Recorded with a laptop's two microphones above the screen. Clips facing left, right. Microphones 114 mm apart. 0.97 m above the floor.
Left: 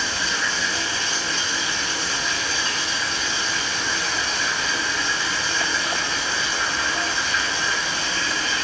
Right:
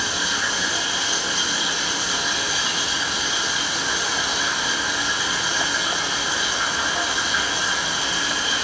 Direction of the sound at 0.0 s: 10° right (ahead or behind).